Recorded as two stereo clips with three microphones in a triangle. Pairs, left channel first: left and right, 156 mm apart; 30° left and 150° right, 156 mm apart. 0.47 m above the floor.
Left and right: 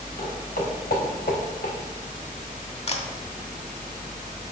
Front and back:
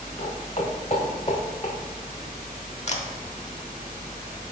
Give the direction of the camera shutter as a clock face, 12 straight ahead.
10 o'clock.